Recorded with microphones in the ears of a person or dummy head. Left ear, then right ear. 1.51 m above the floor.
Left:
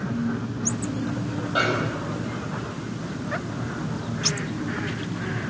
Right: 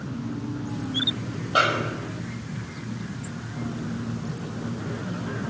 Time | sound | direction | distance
1.6 | a snare drum | 55° right (ahead or behind) | 5 m